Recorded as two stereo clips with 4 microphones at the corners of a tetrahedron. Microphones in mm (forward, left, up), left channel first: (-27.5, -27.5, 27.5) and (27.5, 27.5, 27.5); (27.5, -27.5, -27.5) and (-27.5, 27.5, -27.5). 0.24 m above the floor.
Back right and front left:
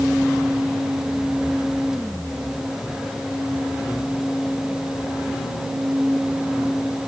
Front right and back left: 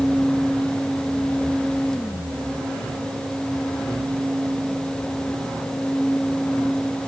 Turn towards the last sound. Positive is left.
No sound to turn to.